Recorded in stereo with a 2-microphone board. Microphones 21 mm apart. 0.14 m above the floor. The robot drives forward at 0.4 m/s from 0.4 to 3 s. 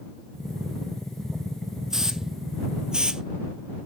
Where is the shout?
No shout in this recording.